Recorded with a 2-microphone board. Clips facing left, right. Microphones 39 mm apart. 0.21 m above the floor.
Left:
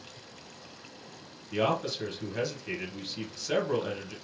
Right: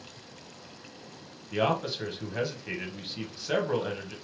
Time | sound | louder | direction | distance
1.5 | a man speaking | right 1 dB | 15° right (ahead or behind) | 1.0 m